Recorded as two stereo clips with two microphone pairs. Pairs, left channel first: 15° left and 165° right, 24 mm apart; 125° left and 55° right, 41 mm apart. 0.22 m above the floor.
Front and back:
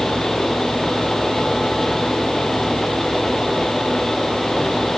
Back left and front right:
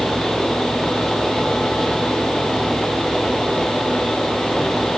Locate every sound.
Only background noise.